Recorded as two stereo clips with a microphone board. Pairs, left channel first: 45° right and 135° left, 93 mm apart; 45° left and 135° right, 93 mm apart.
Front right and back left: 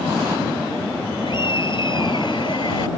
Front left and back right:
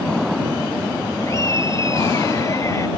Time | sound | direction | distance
1.2 | laughter | 15° right | ?